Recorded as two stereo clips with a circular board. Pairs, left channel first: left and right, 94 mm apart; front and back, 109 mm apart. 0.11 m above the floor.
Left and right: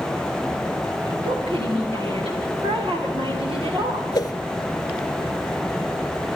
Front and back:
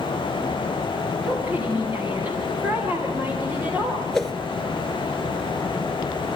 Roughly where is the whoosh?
Left.